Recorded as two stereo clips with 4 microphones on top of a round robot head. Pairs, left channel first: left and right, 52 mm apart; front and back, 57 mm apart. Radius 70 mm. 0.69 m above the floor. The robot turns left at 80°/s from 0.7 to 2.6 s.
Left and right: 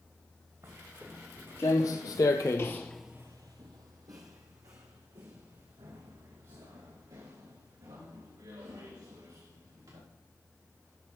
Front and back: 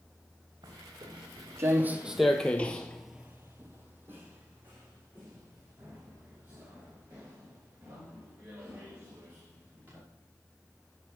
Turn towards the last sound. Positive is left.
turn(degrees=-115)